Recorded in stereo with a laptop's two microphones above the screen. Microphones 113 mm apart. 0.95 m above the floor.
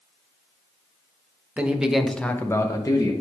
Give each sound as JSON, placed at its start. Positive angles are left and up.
{"t": 1.6, "sound": "a man speaking", "side_deg": -15, "distance_m": 1.1}